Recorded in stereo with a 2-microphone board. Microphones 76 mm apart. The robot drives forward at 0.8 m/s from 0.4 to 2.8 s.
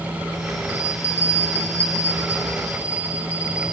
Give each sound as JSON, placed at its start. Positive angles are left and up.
{"t": 0.7, "sound": "a bell", "side_deg": 35, "distance_m": 1.7}